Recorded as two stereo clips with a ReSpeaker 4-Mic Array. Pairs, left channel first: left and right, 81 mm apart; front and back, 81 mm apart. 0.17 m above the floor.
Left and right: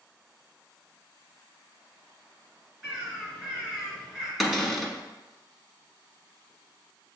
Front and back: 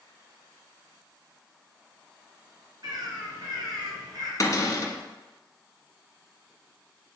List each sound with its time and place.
2.8 s a bird: 175° right, 2.5 m
4.4 s a cupboard door: 5° right, 1.1 m